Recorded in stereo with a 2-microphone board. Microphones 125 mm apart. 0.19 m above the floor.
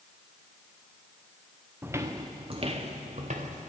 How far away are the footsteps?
About 0.9 m.